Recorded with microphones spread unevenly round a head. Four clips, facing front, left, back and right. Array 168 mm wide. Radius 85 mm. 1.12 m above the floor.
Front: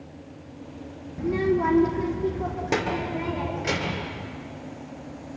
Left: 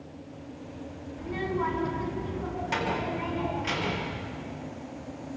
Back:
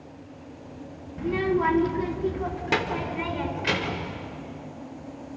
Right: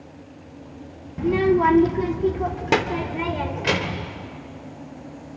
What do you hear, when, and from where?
1.2 s a child speaking: 85° right, 1.2 m; by 4.1 s 90° right, 3.5 m